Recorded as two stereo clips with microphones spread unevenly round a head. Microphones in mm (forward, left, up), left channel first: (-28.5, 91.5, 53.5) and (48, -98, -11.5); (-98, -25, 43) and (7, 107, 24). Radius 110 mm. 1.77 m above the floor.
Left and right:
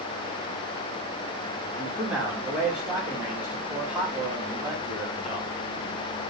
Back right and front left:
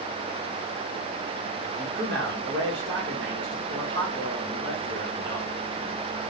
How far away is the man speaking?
About 1.9 m.